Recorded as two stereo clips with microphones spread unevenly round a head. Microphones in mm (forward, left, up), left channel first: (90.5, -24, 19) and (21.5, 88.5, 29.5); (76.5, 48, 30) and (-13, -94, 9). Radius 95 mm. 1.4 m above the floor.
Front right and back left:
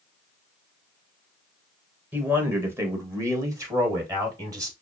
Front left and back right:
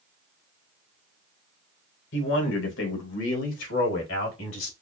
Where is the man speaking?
45° left, 1.4 m; by 4.7 s 60° left, 3 m.